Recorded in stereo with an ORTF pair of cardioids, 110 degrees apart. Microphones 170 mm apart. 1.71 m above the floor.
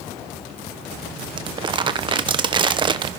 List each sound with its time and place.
1.4 s crumpling: 30° right, 1.0 m